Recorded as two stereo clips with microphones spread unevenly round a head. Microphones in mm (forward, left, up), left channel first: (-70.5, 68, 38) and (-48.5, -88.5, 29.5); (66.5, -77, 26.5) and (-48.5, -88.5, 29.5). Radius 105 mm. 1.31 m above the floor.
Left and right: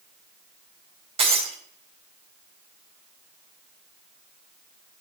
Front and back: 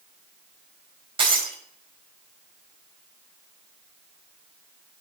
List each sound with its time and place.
1.2 s breaking glass: 135° right, 5 m